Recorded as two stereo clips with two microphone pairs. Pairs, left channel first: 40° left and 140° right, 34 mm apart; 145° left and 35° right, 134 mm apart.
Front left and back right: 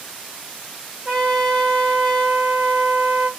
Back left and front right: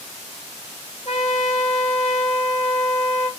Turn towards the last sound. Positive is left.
turn(degrees=180)